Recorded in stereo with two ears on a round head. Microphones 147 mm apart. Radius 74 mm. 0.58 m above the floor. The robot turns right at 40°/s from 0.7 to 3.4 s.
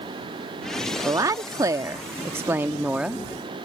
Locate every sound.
1.1 s a woman speaking: 20° right (ahead or behind); by 3.2 s 5° right (ahead or behind)